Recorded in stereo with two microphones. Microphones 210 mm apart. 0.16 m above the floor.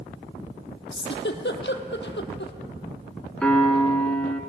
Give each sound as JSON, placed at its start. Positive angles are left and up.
{"t": 0.9, "sound": "a giggle", "side_deg": 65, "distance_m": 0.8}
{"t": 3.4, "sound": "a piano", "side_deg": 5, "distance_m": 1.2}